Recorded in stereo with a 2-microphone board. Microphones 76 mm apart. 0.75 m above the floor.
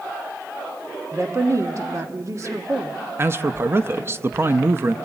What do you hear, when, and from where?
1.1 s a woman speaking: 40° right (ahead or behind), 1.3 m
3.2 s a man speaking: 35° right (ahead or behind), 0.6 m